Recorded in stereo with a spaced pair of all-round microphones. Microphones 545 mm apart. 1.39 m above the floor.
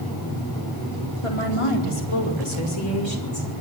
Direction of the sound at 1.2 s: 70° left (ahead or behind).